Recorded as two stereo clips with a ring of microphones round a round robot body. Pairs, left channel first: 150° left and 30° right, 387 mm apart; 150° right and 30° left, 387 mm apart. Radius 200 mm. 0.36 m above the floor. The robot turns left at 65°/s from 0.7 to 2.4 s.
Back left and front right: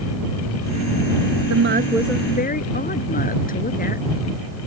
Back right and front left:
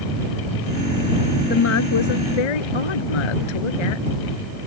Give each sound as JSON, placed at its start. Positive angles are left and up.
{"t": 1.5, "sound": "a woman speaking", "azimuth_deg": -80}